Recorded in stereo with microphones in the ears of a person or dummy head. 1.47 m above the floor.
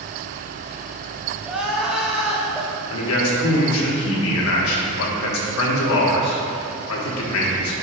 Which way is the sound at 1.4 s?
5° right (ahead or behind).